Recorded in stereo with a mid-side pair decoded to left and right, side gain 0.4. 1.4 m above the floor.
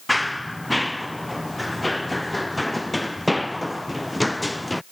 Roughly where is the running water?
No running water in this recording.